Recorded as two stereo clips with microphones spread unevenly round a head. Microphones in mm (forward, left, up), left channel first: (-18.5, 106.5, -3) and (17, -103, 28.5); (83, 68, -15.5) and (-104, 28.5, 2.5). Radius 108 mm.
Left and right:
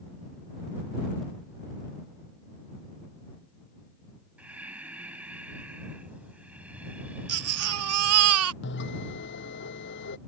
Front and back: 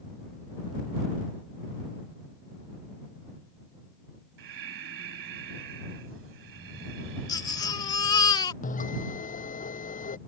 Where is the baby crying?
60° right.